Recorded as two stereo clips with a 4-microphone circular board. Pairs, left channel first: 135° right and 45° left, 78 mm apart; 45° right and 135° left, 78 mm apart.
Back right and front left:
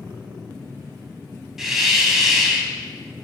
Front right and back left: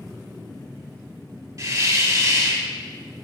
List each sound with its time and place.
1.6 s a hiss: 125° left, 1.1 m